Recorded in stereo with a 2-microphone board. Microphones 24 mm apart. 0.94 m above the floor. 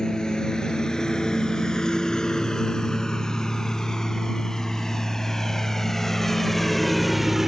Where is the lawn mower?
30° left (ahead or behind); by 7.5 s 10° right (ahead or behind).